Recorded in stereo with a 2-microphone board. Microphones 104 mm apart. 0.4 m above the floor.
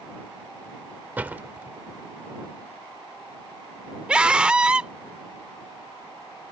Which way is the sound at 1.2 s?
15° right (ahead or behind).